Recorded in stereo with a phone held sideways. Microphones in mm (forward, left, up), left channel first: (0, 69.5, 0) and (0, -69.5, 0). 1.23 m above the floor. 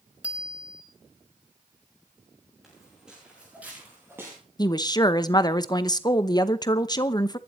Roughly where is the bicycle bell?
Centre.